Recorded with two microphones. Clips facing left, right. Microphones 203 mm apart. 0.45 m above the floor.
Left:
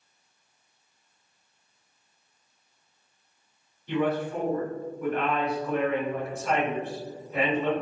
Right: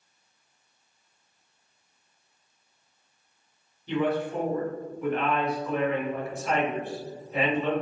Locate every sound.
3.9 s a man speaking: 35° right (ahead or behind), 1.6 m